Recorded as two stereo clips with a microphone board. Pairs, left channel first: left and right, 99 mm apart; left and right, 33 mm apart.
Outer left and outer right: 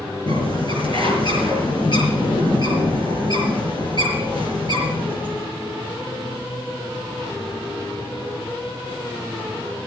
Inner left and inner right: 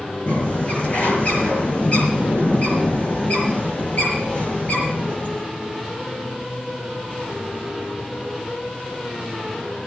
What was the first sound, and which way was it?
A bird, 50° left (ahead or behind).